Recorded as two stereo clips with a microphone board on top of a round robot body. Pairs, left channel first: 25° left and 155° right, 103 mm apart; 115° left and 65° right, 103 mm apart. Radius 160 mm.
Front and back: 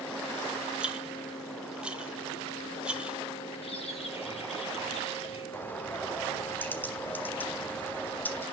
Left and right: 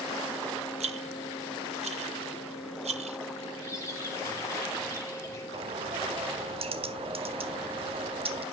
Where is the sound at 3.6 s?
50° left, 3 m.